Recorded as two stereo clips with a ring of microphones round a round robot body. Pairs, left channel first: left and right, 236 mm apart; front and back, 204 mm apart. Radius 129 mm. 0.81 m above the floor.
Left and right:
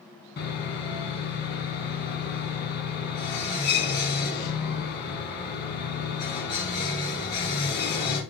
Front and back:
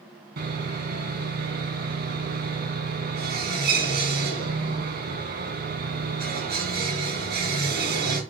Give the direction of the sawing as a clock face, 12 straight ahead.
7 o'clock.